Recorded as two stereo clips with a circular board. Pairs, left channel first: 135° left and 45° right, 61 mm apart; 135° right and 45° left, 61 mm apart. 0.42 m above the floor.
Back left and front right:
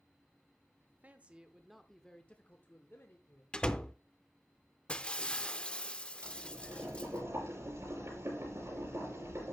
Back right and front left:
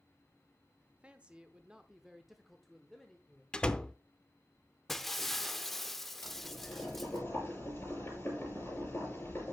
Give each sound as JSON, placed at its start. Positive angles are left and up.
{"t": 0.8, "sound": "a man speaking", "azimuth_deg": -10, "distance_m": 0.9}
{"t": 3.5, "sound": "a door slam", "azimuth_deg": 180, "distance_m": 0.5}
{"t": 4.9, "sound": "breaking glass", "azimuth_deg": 150, "distance_m": 0.6}
{"t": 6.2, "sound": "boiling", "azimuth_deg": -85, "distance_m": 5.5}